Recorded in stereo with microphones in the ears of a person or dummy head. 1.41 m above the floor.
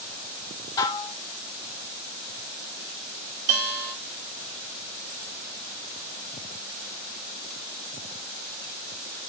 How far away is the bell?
About 2 m.